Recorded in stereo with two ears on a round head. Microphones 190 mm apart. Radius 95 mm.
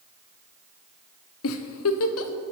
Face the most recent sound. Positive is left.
turn(degrees=70)  # may be behind; listen again after turning